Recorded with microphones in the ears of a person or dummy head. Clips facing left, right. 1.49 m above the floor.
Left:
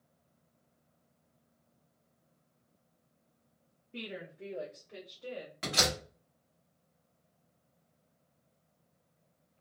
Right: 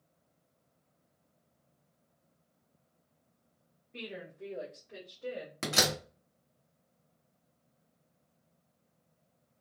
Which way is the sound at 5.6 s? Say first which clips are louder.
Right 2 dB; 55° right (ahead or behind).